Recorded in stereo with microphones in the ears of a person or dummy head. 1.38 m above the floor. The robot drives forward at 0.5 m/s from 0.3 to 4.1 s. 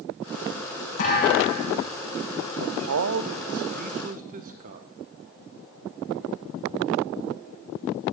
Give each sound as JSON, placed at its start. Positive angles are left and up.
{"t": 1.0, "sound": "a thud", "side_deg": 45, "distance_m": 8.5}
{"t": 2.6, "sound": "a man speaking", "side_deg": -80, "distance_m": 0.7}